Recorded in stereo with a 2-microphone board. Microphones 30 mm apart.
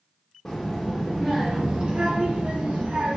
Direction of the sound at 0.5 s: 20° left (ahead or behind).